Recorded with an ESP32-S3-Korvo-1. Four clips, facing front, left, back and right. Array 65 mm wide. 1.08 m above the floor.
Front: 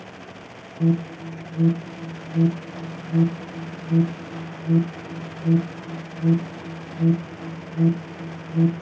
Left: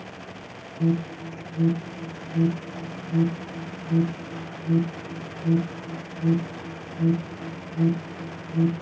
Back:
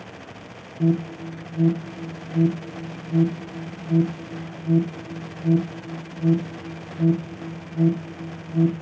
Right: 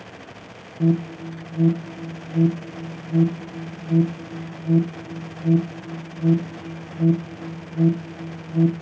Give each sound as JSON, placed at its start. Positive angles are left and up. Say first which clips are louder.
{"t": 0.8, "sound": "an alarm", "louder": "right 4 dB, even", "azimuth_deg": -85, "distance_m": 0.8}